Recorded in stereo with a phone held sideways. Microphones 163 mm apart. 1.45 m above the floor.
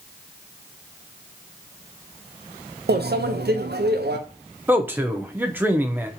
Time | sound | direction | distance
2.9 | a microwave | 85° right | 0.5 m
4.7 | a man speaking | 10° right (ahead or behind) | 0.6 m